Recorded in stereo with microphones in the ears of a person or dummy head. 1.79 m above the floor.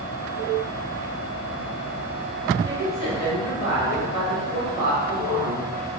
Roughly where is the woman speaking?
Left.